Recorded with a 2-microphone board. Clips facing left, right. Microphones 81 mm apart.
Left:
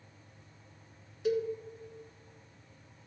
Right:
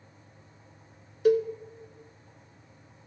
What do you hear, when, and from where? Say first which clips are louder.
1.2 s a cowbell: right 8 dB; 60° right (ahead or behind), 0.7 m